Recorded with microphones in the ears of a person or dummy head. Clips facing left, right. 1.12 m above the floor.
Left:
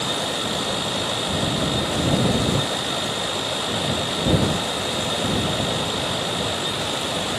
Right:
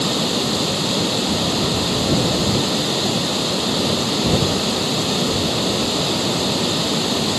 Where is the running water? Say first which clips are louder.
Right 6 dB; 65° right (ahead or behind).